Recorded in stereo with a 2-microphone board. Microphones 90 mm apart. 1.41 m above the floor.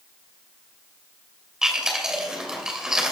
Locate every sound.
1.6 s chewing: 10° right (ahead or behind), 2.5 m